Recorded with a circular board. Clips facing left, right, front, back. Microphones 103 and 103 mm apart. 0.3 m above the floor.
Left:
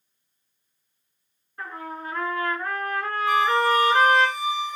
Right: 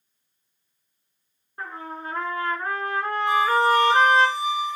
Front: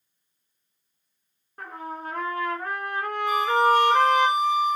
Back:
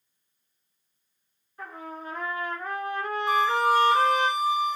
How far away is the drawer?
I don't hear a drawer.